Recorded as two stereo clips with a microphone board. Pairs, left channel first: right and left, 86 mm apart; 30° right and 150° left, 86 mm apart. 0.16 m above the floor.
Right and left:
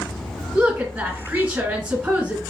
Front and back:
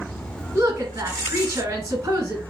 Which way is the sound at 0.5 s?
140° left.